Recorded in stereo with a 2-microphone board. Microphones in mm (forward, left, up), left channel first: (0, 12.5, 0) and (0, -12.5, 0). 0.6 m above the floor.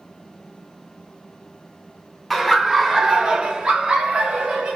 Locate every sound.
2.3 s laughter: 5° right (ahead or behind), 0.9 m; by 4.8 s 60° right (ahead or behind), 1.1 m